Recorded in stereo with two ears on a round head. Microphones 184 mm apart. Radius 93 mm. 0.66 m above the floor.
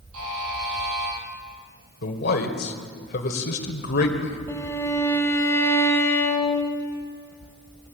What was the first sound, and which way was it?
A buzzer, 75° right (ahead or behind).